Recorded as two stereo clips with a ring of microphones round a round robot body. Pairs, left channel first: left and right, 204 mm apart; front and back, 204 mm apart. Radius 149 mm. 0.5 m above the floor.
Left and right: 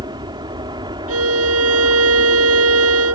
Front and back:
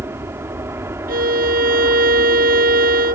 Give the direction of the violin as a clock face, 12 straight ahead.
4 o'clock.